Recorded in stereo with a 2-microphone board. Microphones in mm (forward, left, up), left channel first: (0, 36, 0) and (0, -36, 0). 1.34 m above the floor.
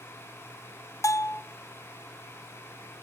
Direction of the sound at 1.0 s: 45° left (ahead or behind).